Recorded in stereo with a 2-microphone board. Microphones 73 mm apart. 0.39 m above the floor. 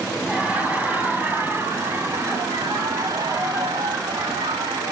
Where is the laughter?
15° right (ahead or behind), 3 m; by 4.9 s 70° right (ahead or behind), 3.5 m.